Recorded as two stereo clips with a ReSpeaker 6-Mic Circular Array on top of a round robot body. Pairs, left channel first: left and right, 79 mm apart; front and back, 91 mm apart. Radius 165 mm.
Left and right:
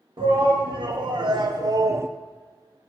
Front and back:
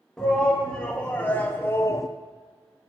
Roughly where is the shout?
Right.